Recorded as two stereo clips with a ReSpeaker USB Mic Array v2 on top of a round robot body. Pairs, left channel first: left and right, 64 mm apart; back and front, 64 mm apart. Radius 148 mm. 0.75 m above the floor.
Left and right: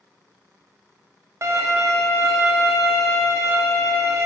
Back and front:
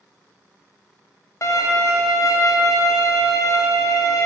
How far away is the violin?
About 0.9 m.